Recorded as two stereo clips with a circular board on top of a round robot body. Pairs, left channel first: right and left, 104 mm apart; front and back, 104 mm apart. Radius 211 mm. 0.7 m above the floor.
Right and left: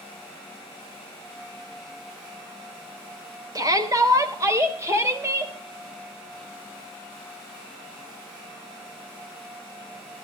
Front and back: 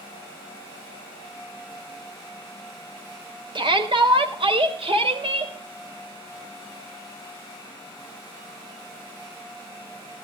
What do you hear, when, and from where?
3.5 s a shout: 145° left, 3.5 m; by 5.5 s 155° left, 4.5 m